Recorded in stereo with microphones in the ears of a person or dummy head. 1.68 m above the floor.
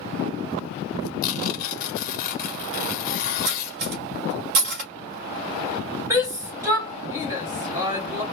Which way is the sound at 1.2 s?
50° left (ahead or behind).